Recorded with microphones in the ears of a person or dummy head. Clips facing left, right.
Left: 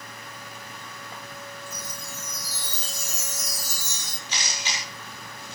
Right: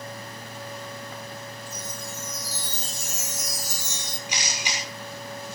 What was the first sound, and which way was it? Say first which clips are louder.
A chime: right 3 dB; 40° left (ahead or behind).